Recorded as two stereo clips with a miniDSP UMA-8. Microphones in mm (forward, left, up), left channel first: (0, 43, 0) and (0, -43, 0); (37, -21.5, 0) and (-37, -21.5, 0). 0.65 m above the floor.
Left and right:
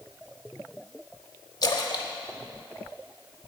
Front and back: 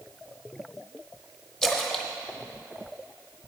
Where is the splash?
80° left, 0.8 m.